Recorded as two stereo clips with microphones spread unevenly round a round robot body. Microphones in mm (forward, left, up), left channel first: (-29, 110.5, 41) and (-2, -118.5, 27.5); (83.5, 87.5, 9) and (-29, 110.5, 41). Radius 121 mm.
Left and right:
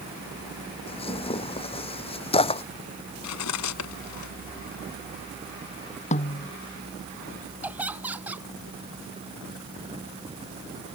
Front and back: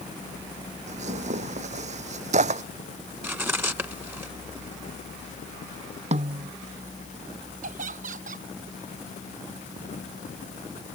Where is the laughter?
165° right.